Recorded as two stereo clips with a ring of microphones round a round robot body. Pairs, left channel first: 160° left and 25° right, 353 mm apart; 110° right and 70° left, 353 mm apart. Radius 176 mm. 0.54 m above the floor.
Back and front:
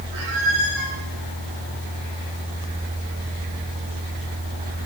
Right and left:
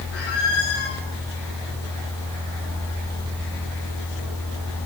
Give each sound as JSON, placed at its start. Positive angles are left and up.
{"t": 0.1, "sound": "a squeak", "azimuth_deg": -60, "distance_m": 10.0}